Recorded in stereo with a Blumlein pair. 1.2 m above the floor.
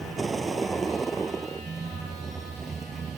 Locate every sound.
0.0 s a vehicle: 15° right; by 3.2 s 20° right